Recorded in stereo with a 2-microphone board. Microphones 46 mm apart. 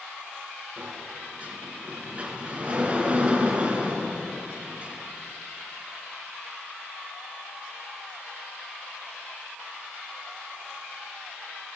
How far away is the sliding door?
About 4 m.